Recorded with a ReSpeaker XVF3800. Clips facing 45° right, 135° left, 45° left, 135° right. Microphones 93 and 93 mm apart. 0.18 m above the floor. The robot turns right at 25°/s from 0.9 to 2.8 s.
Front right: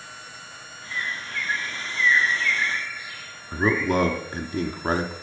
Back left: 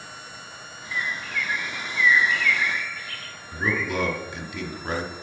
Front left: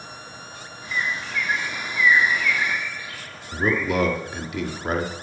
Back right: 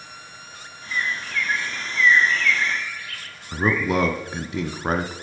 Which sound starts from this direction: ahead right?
A bird, at 0.9 s.